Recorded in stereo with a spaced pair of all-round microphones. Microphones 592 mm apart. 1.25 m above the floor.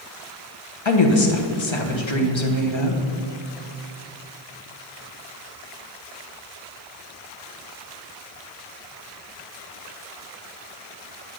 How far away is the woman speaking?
About 1.0 m.